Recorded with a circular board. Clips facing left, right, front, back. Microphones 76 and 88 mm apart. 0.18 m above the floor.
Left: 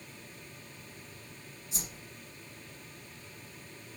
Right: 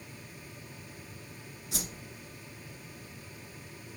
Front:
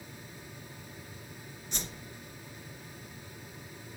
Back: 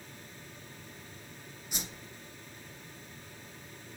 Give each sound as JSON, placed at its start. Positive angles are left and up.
{"t": 1.7, "sound": "a whoosh", "azimuth_deg": -100, "distance_m": 2.0}